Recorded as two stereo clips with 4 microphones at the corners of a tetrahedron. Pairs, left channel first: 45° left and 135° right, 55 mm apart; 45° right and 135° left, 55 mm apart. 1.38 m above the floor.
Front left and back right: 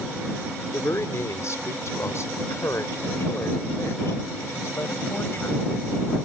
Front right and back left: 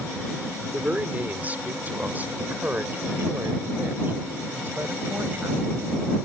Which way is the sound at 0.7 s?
70° left.